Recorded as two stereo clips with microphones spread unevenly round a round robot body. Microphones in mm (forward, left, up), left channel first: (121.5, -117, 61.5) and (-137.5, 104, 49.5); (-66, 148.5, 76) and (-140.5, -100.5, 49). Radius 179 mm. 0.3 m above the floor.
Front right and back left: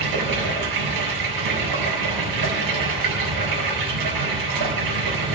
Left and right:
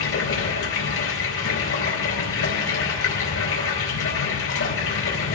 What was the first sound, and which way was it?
Running water, 110° left.